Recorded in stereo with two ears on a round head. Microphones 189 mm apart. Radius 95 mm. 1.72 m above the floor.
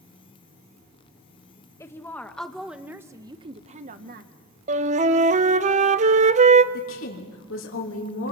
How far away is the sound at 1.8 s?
About 1.7 m.